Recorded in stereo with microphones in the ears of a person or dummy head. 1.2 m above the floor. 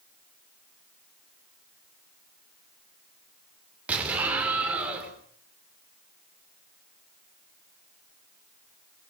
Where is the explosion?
5° right (ahead or behind), 3.5 m.